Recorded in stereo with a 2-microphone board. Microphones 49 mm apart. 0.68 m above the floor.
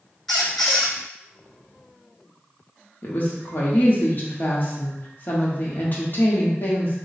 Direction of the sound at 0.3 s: 5° left (ahead or behind).